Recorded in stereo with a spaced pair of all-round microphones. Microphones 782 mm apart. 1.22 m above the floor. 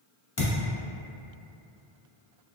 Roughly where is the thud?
Left.